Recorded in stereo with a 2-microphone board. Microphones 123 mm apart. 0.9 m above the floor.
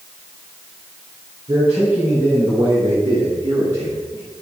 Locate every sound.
1.5 s a man speaking: 70° right (ahead or behind), 3.5 m; by 4.2 s 40° right (ahead or behind), 1.1 m